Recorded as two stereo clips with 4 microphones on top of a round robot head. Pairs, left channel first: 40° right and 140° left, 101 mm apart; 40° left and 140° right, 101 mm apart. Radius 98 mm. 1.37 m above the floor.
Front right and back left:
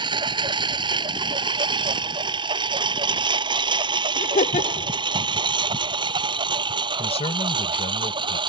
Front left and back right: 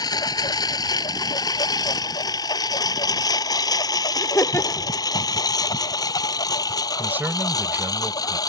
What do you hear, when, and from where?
0.0 s a lawn mower: 95° left
4.2 s laughter: 30° right
7.0 s a man speaking: 65° right